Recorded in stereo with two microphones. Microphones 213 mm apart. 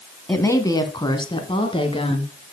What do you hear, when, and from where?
0.3 s a woman speaking: 10° left (ahead or behind), 1.3 m; by 2.3 s 25° left (ahead or behind), 2.5 m